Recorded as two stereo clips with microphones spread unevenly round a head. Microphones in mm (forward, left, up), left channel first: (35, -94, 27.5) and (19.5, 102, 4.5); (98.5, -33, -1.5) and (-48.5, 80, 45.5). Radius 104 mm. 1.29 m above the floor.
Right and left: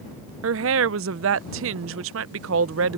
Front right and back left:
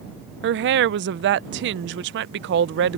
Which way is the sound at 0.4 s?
120° left.